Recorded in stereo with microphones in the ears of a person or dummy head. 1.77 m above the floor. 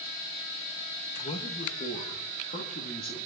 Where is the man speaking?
40° left (ahead or behind), 1.3 m; by 3.3 s 55° left (ahead or behind), 2.5 m.